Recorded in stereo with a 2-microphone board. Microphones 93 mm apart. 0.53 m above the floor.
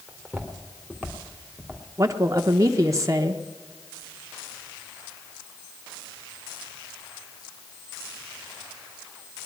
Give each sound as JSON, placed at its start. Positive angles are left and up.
{"t": 0.1, "sound": "footsteps", "side_deg": 0, "distance_m": 2.5}
{"t": 2.0, "sound": "a woman speaking", "side_deg": -35, "distance_m": 0.8}